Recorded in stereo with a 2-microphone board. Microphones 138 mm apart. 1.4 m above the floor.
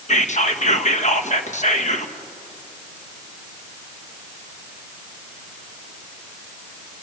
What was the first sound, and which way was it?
Whispering, 60° left (ahead or behind).